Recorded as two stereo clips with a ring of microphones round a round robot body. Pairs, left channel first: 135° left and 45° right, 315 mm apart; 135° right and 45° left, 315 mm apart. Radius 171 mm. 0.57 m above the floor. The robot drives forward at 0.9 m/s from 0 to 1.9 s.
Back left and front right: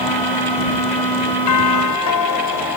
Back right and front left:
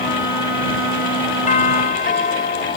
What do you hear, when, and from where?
1.5 s a doorbell: 160° left